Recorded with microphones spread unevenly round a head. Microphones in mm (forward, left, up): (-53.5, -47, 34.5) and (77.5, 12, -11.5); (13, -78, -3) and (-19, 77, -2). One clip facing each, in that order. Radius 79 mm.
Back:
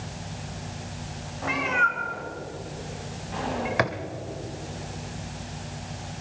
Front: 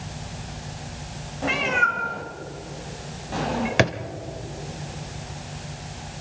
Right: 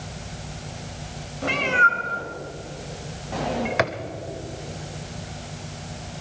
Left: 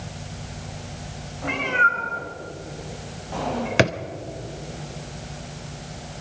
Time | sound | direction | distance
1.4 | a cat meowing | 35° right | 3.5 m
3.8 | a drawer | 95° left | 0.9 m